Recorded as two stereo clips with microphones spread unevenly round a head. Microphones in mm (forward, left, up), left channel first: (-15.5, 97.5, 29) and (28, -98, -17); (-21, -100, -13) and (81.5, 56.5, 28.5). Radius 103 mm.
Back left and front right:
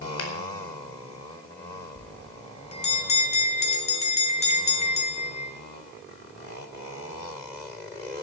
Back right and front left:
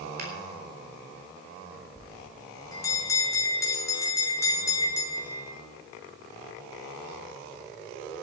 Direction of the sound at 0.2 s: 100° left.